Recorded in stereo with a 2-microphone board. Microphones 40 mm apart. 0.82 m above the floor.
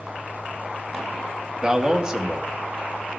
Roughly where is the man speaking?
Right.